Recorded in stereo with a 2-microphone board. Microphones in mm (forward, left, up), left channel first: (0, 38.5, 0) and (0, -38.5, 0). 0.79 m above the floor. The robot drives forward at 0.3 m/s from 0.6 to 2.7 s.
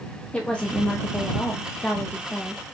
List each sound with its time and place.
0.3 s a woman speaking: 15° left (ahead or behind), 0.7 m